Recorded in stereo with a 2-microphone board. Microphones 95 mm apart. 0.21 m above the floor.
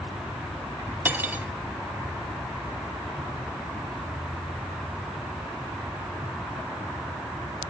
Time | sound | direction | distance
1.1 | cutlery clinking | 20° right (ahead or behind) | 0.8 m